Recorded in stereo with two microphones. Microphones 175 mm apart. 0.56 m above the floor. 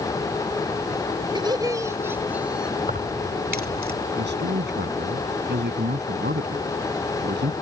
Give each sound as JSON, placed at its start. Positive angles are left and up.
{"t": 1.4, "sound": "laughter", "side_deg": -25}
{"t": 2.8, "sound": "keys jangling", "side_deg": -60}
{"t": 4.2, "sound": "a man speaking", "side_deg": -80}